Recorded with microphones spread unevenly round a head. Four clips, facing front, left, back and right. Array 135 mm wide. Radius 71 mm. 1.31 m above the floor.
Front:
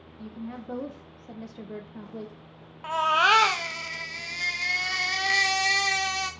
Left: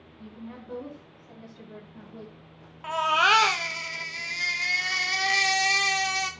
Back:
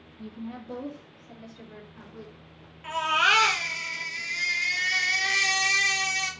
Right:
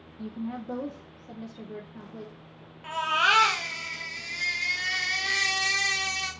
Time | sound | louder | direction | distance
0.2 | a woman speaking | right 8 dB, even | 80° right | 1.2 m
2.8 | a baby crying | left 3 dB, front 3 dB | 45° left | 1.1 m